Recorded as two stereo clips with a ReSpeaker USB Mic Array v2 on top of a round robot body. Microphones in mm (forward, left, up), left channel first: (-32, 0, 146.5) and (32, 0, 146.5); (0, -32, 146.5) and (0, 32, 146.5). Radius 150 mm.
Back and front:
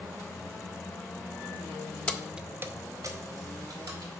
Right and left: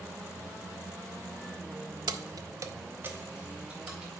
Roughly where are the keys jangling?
Left.